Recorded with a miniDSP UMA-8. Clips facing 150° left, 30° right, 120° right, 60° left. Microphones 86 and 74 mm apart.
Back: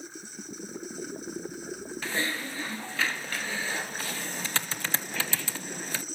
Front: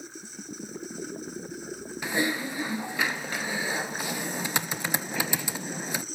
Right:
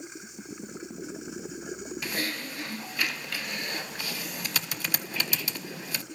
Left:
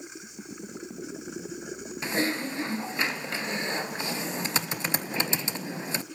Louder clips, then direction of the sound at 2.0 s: Front 5 dB, left 8 dB; 30° left.